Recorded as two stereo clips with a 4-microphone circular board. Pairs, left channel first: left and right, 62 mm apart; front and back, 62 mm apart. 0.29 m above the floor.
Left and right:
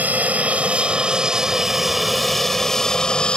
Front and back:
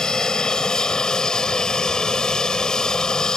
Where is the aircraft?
70° right; by 3.4 s 55° left.